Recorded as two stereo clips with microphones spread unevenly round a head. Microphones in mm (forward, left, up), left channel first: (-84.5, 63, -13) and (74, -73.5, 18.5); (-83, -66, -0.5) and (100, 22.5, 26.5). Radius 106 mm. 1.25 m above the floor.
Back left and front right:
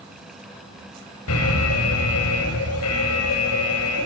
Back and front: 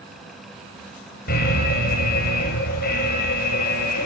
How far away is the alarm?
About 7 m.